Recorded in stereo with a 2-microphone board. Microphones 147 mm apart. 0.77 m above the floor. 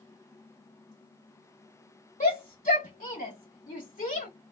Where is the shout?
65° left (ahead or behind), 0.9 m.